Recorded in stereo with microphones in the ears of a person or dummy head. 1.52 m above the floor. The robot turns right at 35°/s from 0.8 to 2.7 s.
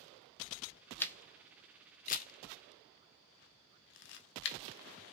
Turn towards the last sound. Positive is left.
turn(degrees=55)  # may be behind; listen again after turning